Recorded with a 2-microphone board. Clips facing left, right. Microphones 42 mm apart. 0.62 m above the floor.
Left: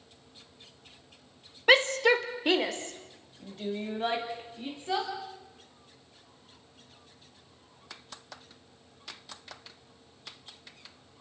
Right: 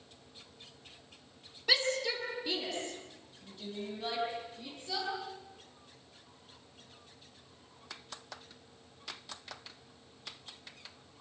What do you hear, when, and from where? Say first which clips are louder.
1.7 s a shout: left 10 dB; 45° left (ahead or behind), 1.5 m